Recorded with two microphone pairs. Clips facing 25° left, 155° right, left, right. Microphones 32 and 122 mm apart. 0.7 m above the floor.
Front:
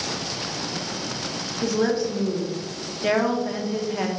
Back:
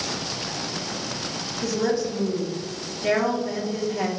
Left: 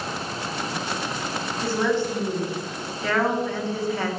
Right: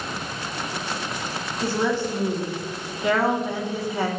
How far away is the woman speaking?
About 1.1 m.